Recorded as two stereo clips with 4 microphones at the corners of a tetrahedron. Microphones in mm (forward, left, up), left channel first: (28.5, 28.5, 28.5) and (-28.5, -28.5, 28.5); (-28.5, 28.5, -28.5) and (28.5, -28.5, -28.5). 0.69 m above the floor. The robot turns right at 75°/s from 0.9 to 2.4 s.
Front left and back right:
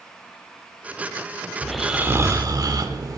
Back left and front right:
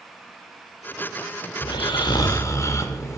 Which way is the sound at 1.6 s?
125° left.